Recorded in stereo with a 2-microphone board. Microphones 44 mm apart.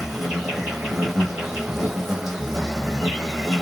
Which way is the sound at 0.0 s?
10° right (ahead or behind).